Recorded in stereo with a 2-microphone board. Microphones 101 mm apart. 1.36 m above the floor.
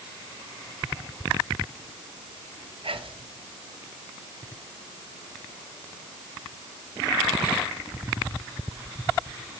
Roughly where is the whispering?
Right.